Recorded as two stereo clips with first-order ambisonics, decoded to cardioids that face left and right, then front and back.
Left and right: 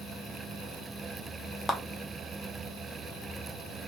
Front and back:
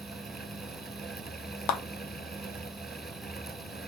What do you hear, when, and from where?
1.7 s a clap: 10° left, 0.6 m